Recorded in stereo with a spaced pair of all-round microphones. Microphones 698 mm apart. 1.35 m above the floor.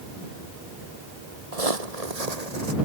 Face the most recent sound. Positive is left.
turn(degrees=-65)  # may be behind; listen again after turning